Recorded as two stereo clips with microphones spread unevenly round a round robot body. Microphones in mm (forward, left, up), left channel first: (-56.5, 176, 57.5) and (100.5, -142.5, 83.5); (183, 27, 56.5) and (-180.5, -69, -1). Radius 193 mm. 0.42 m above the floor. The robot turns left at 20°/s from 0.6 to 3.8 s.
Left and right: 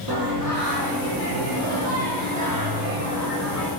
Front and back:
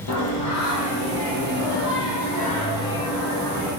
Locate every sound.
0.1 s singing: 20° right, 10 m; by 3.7 s 80° right, 10 m